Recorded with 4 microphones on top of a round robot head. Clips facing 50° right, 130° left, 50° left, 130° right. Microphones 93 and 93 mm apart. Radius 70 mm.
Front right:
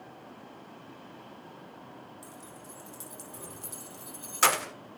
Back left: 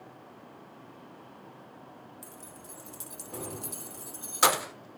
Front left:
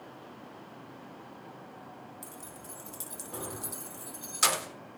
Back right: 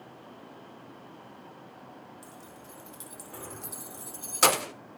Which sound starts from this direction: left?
Keys jangling, at 2.2 s.